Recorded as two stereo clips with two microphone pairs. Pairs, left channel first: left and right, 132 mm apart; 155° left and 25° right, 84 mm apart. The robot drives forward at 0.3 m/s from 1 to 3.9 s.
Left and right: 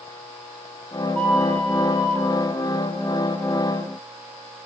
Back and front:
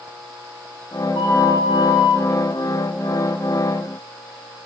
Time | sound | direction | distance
1.1 | a flute | 170° left | 5.5 m